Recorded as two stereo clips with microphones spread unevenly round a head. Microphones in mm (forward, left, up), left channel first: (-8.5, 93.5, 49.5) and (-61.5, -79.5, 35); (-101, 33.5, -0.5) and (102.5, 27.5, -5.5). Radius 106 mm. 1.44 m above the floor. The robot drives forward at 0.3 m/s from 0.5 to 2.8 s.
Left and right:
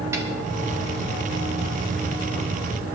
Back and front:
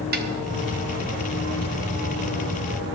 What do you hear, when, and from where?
0.1 s a snare drum: 30° right, 1.1 m